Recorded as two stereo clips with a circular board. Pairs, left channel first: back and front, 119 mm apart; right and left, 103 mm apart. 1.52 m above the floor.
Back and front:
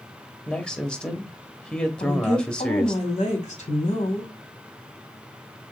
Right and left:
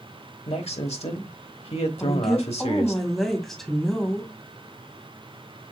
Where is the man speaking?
100° right, 1.1 m.